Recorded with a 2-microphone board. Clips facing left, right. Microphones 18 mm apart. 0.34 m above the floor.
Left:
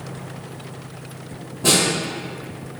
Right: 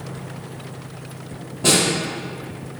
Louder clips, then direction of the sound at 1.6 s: Even; 20° right (ahead or behind).